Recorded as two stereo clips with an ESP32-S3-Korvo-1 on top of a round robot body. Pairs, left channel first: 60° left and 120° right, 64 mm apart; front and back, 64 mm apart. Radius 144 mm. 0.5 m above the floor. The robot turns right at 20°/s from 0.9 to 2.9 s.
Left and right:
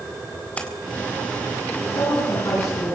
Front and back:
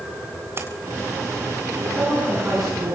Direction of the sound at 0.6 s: 130° left.